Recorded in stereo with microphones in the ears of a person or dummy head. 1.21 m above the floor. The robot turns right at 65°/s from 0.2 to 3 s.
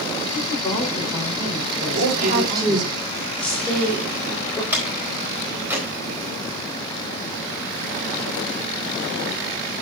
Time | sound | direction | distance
0.3 | a woman speaking | 130° left | 4 m
1.9 | a woman speaking | 65° right (ahead or behind) | 5 m
4.7 | a door slam | 15° right (ahead or behind) | 4 m